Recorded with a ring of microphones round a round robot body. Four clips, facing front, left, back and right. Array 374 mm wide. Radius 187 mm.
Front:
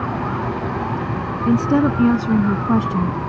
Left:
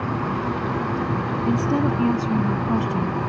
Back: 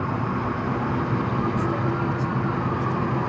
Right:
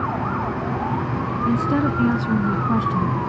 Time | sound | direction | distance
1.5 | a woman speaking | 5° right | ?